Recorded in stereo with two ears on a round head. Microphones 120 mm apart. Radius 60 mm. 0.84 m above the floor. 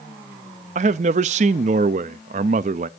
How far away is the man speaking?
About 0.6 m.